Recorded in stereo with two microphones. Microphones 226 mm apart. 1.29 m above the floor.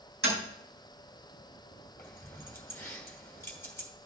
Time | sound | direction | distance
0.2 | tapping | 65° right (ahead or behind) | 5 m
2.0 | keys jangling | 10° left (ahead or behind) | 2 m